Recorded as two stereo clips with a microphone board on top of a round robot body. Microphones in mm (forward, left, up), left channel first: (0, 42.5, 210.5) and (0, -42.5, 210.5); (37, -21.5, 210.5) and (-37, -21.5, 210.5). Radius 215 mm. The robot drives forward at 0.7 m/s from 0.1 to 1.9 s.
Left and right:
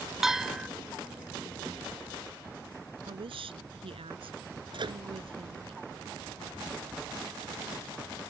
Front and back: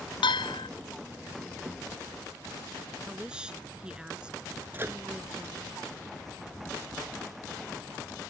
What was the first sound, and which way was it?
A bell, 5° right.